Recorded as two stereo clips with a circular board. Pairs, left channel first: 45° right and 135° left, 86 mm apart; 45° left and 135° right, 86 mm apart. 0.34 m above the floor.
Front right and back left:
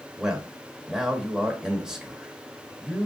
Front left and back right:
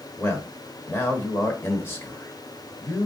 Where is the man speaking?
60° left, 1.0 m.